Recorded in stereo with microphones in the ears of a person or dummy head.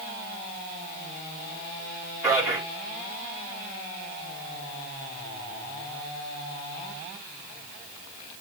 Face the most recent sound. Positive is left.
turn(degrees=-10)  # may be behind; listen again after turning